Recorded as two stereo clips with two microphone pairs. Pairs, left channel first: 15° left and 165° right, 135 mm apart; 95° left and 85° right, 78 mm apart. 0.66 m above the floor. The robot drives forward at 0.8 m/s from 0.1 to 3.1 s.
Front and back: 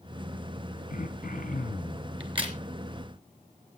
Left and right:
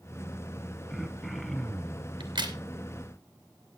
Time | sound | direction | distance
0.9 | throat clearing | 10° left | 3 m
2.2 | a crack | 110° right | 3 m